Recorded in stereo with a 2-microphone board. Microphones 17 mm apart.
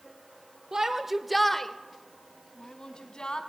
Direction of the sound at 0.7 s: 35° right (ahead or behind).